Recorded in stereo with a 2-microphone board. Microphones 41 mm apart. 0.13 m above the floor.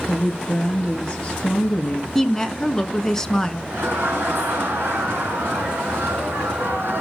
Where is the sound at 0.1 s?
30° left (ahead or behind), 2 m.